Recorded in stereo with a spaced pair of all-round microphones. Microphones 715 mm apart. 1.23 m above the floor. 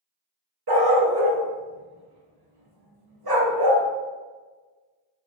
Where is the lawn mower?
I don't hear a lawn mower.